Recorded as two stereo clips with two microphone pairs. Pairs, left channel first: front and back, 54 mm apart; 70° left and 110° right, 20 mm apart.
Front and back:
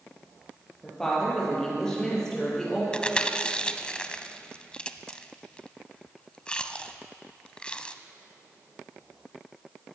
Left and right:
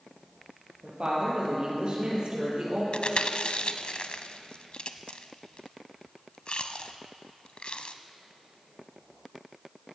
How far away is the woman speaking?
About 6 m.